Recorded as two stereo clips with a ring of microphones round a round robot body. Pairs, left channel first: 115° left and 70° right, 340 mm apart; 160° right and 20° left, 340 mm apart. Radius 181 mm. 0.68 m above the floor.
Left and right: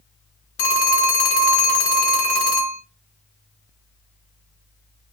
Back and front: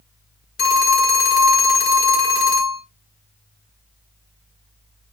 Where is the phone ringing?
140° left, 1.2 m.